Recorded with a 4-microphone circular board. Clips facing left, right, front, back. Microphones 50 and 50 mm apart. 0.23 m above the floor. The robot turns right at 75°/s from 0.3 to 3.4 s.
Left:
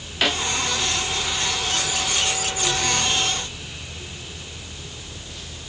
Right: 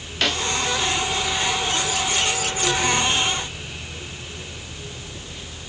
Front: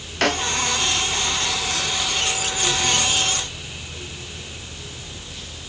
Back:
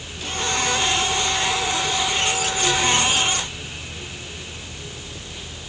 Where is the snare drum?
10° left; by 0.5 s 20° left.